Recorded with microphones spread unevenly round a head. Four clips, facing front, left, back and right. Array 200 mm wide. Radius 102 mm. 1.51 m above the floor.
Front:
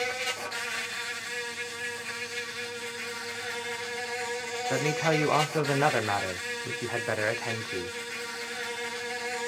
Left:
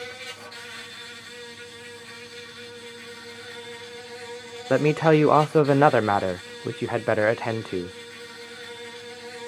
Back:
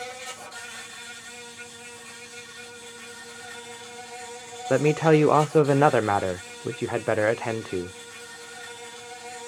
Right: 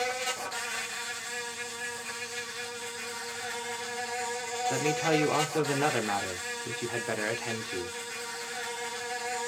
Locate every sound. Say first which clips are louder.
0.0 s an insect: right 6 dB, front 5 dB; 35° right, 0.9 m
4.7 s a man speaking: left 10 dB, back 9 dB; 135° left, 0.5 m